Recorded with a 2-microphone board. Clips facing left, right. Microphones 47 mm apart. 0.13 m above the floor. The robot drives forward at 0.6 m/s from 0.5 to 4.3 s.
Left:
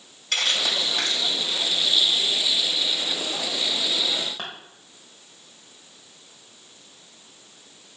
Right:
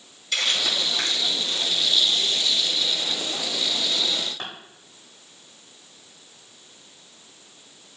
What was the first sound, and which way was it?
Crumpling, 60° left (ahead or behind).